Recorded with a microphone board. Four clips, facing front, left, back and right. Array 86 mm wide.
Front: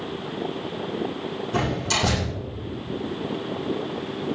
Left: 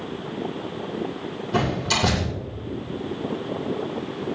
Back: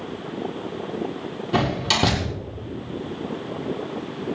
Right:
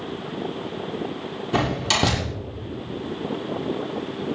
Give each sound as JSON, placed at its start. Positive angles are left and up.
{"t": 1.5, "sound": "a door slam", "azimuth_deg": -140, "distance_m": 7.5}